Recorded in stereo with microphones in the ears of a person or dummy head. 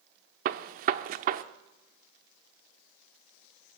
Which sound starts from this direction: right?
A gunshot, at 0.5 s.